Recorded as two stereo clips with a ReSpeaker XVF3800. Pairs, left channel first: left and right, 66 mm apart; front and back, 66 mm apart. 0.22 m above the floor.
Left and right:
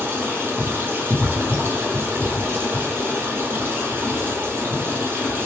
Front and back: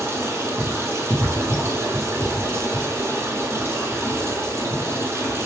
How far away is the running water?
About 0.9 m.